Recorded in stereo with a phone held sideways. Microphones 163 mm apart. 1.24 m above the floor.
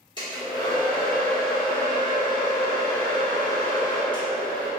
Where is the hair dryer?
30° left (ahead or behind), 1.2 m.